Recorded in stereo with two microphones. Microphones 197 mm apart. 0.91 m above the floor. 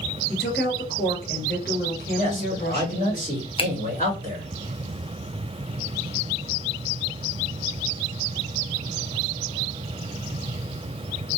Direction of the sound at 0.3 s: 55° left (ahead or behind).